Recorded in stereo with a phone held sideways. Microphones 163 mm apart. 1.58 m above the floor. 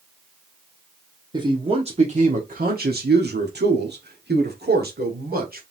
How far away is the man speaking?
About 1.2 m.